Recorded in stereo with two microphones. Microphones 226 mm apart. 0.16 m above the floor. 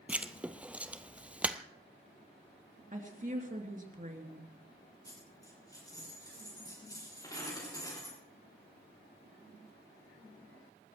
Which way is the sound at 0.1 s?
5° right (ahead or behind).